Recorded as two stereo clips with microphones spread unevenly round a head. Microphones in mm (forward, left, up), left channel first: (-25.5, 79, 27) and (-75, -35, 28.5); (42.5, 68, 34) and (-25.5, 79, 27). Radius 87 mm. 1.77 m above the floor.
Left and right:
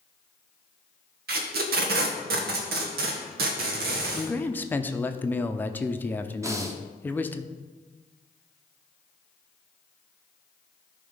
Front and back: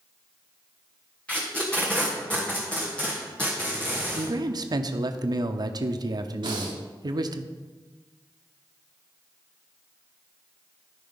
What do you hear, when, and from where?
1.3 s tape being pulled: 90° right, 1.2 m
4.1 s a man speaking: 145° left, 0.7 m
6.4 s breathing: straight behind, 1.4 m